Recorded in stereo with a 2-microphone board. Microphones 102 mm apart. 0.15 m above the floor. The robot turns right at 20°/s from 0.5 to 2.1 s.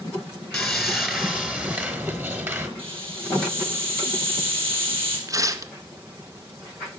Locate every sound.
0.5 s sawing: 175° left, 1.4 m; by 2.7 s 155° right, 1.4 m
2.8 s a hiss: 60° right (ahead or behind), 4 m
5.3 s tearing paper: 35° right (ahead or behind), 0.6 m